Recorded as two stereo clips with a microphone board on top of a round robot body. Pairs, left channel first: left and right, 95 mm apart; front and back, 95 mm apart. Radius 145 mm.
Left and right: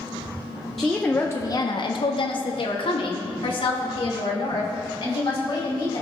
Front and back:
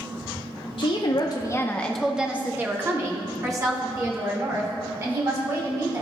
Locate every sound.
0.8 s a woman speaking: straight ahead, 1.0 m; by 6.0 s 130° left, 4 m